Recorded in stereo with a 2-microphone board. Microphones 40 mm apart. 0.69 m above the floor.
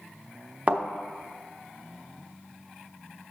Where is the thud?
30° right (ahead or behind), 0.5 m.